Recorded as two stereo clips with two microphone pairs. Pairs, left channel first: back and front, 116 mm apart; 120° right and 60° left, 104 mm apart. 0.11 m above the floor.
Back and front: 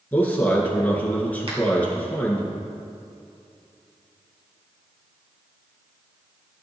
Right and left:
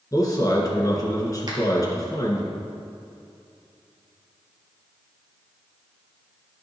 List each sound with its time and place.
0.1 s a man speaking: 115° right, 1.7 m
1.5 s a finger snap: 25° left, 2 m